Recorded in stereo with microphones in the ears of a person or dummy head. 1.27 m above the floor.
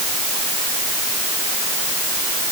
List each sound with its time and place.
Only background noise.